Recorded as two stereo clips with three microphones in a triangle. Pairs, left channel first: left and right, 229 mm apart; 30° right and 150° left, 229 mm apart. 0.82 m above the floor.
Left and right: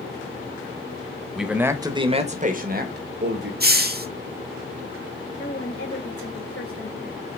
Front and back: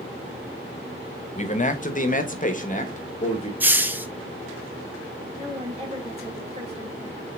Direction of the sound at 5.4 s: 90° left.